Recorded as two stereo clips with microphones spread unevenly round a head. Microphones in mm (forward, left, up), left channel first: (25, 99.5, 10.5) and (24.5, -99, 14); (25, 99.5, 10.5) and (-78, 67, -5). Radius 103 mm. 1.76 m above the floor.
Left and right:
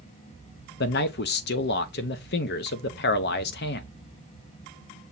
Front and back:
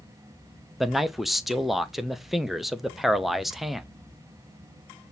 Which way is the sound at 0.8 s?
105° left.